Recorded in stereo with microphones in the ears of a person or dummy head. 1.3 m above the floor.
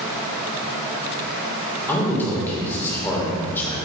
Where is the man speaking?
10° left (ahead or behind), 4.5 m.